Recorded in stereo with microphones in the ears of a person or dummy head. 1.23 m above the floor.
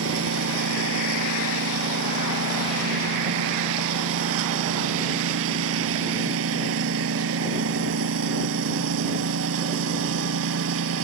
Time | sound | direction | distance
0.0 | a lawn mower | 75° right (ahead or behind) | ?